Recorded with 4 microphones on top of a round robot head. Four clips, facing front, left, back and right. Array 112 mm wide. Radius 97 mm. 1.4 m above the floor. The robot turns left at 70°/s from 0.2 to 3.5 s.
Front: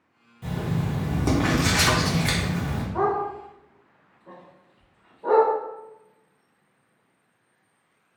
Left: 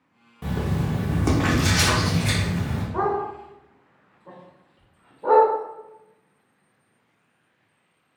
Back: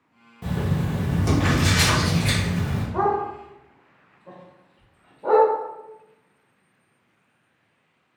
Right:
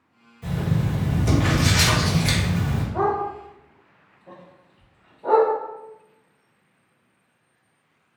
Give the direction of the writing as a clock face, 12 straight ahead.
8 o'clock.